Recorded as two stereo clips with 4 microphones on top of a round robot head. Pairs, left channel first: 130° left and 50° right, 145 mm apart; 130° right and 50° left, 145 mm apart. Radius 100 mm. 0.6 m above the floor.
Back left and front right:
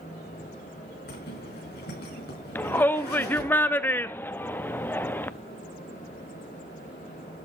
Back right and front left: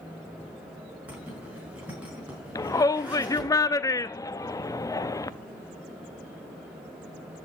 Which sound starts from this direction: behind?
A shout, at 2.5 s.